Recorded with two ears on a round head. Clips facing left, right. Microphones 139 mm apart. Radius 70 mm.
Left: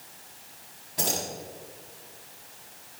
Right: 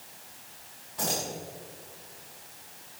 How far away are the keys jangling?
About 6.5 m.